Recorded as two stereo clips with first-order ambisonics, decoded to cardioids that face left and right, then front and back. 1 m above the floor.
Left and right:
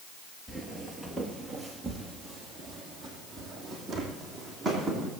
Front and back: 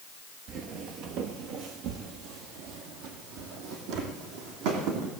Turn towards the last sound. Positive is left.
turn(degrees=-175)